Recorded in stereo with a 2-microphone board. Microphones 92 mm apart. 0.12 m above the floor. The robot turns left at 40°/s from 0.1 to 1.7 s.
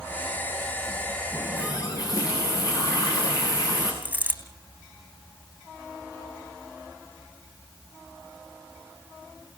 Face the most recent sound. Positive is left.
turn(degrees=-15)  # may be behind; listen again after turning